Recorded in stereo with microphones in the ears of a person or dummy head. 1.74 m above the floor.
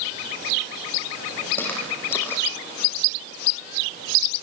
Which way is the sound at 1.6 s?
15° left (ahead or behind).